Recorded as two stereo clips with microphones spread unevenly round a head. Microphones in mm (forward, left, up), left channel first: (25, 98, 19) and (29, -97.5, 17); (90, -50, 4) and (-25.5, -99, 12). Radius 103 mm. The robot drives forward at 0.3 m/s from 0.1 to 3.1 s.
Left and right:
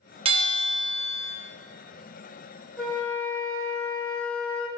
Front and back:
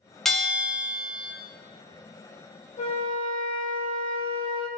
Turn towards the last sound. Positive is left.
turn(degrees=5)